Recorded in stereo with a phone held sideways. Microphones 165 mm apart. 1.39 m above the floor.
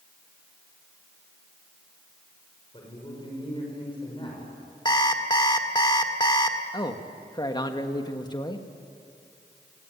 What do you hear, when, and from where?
2.7 s a man speaking: 30° left (ahead or behind), 6 m
4.8 s an alarm clock: 25° left (ahead or behind), 1.7 m
6.7 s a man speaking: 25° left (ahead or behind), 1.6 m